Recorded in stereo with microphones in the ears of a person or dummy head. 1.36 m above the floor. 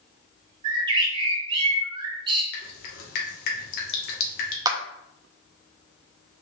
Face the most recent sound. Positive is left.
turn(degrees=-25)  # may be behind; listen again after turning